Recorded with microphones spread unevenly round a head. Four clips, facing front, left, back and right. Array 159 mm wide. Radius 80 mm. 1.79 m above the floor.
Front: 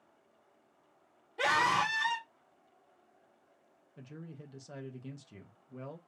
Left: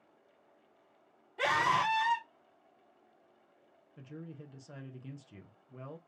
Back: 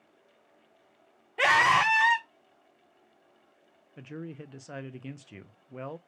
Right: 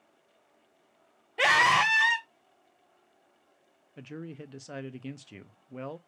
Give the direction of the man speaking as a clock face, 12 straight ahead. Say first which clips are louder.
Right 6 dB, back 8 dB; 4 o'clock.